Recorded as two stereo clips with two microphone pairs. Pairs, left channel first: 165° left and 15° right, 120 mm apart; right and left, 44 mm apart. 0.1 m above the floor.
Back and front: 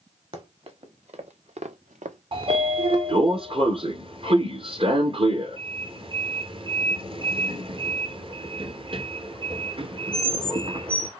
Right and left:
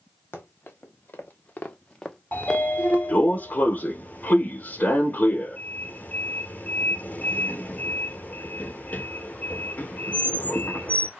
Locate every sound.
0.3 s running footsteps: 50° right, 2.5 m; by 3.0 s 40° left, 1.1 m
2.3 s a sliding door: 40° right, 1.2 m